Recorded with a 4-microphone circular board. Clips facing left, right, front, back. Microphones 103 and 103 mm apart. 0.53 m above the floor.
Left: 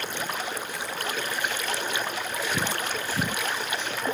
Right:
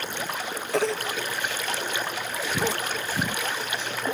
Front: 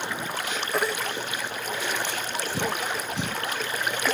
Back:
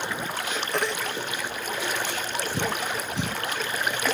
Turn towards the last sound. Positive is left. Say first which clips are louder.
# right 6 dB, front 2 dB
turn(degrees=-85)